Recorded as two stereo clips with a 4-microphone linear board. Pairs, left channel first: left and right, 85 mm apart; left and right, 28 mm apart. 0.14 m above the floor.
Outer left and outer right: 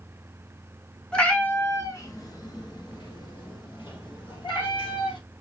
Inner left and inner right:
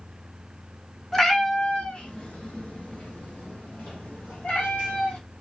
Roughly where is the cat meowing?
Centre.